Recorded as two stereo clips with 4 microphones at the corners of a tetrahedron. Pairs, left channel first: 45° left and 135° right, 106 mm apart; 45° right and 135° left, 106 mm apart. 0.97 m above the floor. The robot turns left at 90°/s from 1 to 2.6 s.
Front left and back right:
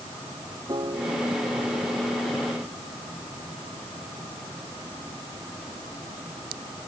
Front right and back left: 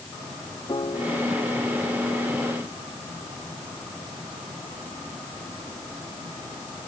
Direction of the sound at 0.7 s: 90° right.